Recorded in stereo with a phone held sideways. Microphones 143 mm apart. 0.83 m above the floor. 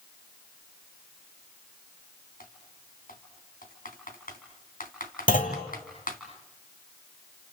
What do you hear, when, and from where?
2.4 s typing on a keyboard: 80° left, 3 m
5.3 s a clunk: 70° left (ahead or behind), 2.5 m